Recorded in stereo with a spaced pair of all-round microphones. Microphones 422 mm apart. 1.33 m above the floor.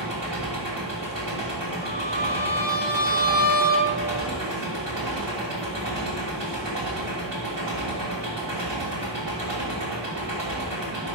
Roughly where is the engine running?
Right.